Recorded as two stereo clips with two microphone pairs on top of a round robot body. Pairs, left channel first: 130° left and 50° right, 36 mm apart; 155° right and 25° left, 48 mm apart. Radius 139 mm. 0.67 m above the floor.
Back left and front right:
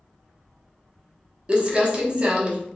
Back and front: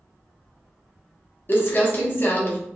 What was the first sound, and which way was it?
Crumpling, 110° right.